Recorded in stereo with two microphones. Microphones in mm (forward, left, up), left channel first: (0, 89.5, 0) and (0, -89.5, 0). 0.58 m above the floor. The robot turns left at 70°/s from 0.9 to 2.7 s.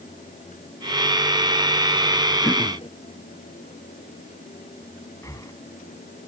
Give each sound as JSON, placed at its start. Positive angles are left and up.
{"t": 2.4, "sound": "throat clearing", "side_deg": 10}
{"t": 5.2, "sound": "breathing", "side_deg": 20}